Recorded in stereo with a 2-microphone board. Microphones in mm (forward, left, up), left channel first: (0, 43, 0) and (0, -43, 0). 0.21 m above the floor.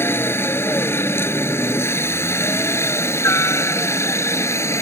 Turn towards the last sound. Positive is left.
turn(degrees=30)  # may be behind; listen again after turning